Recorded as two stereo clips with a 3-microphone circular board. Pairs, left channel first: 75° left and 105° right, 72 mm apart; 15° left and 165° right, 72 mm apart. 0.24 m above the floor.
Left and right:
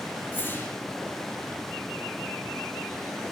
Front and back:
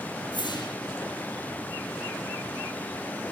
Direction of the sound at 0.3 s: 10° left.